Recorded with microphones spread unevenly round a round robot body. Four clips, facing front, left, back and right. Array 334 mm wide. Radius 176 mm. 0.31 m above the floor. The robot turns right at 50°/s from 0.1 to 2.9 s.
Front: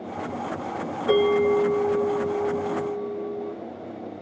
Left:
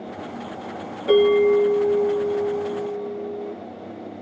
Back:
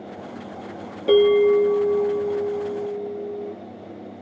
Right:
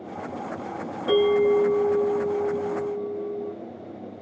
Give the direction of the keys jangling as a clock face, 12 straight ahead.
I don't hear keys jangling.